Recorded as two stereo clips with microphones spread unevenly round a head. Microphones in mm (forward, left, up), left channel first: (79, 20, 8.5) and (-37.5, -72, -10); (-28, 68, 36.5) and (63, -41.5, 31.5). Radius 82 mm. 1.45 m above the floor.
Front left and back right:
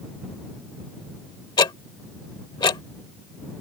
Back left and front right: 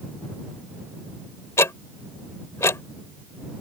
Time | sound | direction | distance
1.6 | ticking | 70° left | ?